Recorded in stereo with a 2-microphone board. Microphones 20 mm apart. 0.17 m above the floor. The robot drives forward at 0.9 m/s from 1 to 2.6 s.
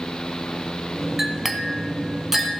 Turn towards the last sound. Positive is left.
turn(degrees=-10)  # may be behind; listen again after turning